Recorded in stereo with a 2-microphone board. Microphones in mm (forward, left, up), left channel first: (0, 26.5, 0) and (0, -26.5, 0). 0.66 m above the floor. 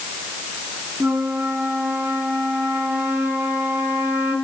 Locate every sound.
1.0 s a flute: 40° right (ahead or behind), 5 m